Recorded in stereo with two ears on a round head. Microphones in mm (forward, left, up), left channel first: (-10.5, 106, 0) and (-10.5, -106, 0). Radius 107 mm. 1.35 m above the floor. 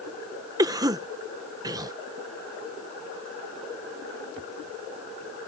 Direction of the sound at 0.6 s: 15° right (ahead or behind).